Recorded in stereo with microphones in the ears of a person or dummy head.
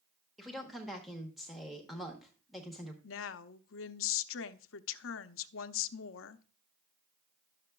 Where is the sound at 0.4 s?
Centre (ahead or behind), 0.9 m.